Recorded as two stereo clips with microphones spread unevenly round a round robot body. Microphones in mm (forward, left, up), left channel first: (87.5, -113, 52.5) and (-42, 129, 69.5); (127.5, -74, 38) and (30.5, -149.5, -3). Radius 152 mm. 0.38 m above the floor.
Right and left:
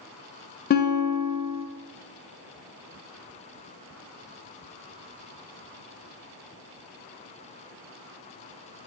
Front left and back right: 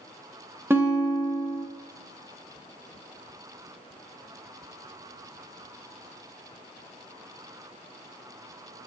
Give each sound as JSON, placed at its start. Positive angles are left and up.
{"t": 0.7, "sound": "a guitar", "azimuth_deg": -100, "distance_m": 0.7}